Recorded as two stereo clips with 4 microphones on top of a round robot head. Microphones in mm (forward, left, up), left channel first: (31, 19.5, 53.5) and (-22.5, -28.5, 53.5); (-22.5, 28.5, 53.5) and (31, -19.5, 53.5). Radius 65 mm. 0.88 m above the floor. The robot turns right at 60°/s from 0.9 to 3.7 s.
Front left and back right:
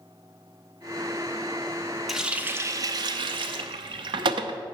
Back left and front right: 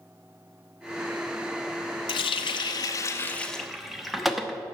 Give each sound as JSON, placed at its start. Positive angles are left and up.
{"t": 2.1, "sound": "a running tap", "azimuth_deg": 135, "distance_m": 0.7}